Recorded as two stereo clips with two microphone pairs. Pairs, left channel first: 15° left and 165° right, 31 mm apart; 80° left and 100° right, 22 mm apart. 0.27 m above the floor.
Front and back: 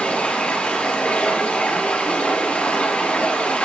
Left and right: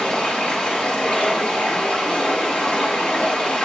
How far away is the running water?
About 4 m.